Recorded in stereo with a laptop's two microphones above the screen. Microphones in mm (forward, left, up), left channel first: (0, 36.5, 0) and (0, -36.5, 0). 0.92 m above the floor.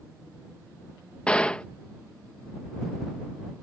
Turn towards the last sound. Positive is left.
turn(degrees=15)  # may be behind; listen again after turning